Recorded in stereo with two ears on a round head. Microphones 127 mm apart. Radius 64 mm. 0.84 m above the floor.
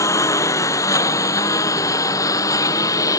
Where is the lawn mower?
20° left (ahead or behind); by 3.2 s 25° left (ahead or behind).